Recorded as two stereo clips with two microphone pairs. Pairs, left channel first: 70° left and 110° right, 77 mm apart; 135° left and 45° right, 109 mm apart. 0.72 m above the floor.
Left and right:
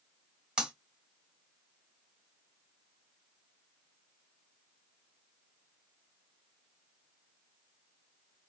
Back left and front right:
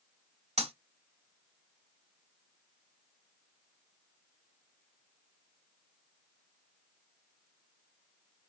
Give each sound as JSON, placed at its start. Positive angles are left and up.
{"t": 0.6, "sound": "breaking glass", "azimuth_deg": -30, "distance_m": 1.6}